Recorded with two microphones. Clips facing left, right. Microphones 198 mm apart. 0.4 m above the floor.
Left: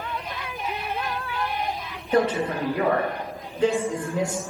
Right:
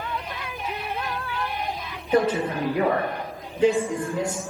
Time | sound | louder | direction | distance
2.1 | a woman speaking | even | 5° right (ahead or behind) | 1.0 m